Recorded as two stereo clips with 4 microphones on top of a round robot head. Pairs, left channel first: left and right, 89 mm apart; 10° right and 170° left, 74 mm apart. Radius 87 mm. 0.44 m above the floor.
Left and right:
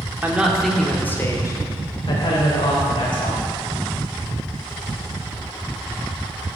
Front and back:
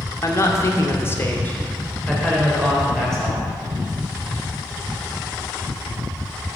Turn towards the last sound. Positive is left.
turn(degrees=75)